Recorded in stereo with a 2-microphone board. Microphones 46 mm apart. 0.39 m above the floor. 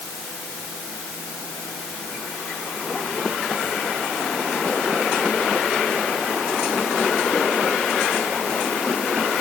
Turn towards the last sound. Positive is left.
No sound to turn to.